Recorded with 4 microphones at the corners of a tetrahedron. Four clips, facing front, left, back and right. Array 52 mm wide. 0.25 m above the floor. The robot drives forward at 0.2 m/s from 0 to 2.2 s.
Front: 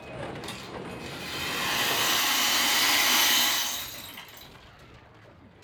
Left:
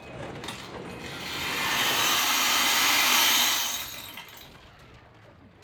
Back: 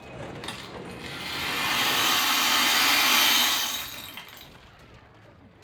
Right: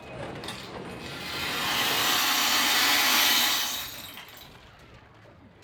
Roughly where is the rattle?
Behind left.